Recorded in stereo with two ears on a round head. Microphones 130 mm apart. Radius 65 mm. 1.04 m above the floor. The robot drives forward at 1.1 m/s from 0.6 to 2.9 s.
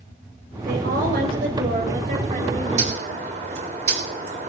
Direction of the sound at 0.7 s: 70° right (ahead or behind).